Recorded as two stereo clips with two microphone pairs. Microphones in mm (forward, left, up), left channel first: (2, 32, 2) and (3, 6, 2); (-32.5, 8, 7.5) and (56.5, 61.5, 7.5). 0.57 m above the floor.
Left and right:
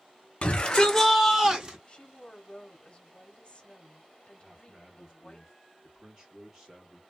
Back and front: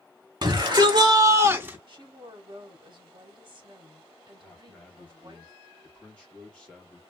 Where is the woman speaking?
55° left, 1.0 m.